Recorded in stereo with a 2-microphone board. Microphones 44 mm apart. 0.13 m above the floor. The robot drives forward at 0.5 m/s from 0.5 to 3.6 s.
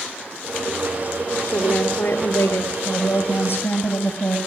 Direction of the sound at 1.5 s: 55° left (ahead or behind).